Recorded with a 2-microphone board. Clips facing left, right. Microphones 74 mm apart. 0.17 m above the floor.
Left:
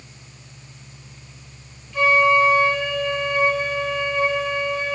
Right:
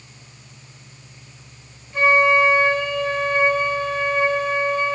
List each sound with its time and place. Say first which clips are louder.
1.9 s a flute: even; 35° right (ahead or behind), 3.5 m